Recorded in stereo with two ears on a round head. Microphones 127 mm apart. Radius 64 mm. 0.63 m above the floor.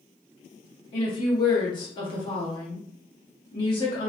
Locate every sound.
0.9 s a woman speaking: 30° left (ahead or behind), 1.1 m